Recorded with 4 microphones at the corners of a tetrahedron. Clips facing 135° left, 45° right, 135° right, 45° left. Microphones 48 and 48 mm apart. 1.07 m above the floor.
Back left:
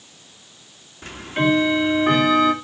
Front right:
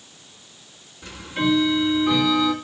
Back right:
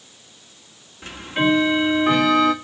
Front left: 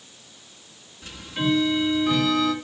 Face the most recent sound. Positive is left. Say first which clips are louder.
# back left 3 dB, back right 5 dB
turn(degrees=175)